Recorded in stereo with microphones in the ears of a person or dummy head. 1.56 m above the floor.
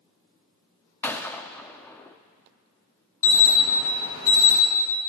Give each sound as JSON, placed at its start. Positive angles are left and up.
{"t": 1.0, "sound": "a gunshot", "side_deg": 10, "distance_m": 0.6}
{"t": 3.2, "sound": "an alarm", "side_deg": 85, "distance_m": 3.5}